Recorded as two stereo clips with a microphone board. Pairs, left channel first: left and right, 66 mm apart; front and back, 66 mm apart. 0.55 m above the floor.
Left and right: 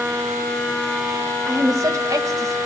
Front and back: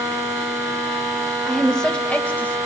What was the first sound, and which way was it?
A woman speaking, 90° right.